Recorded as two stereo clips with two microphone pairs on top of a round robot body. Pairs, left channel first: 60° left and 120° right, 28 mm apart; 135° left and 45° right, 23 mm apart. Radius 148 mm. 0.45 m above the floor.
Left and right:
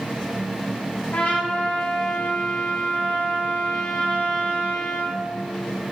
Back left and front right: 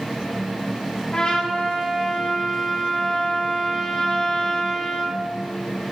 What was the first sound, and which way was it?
A trumpet, 80° left.